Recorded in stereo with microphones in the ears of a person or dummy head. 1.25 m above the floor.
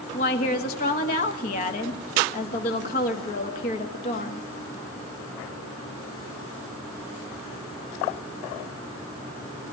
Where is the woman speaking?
40° left (ahead or behind), 1.6 m.